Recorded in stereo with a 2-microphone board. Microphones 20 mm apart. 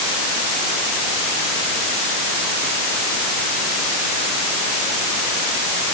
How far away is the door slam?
I don't hear a door slam.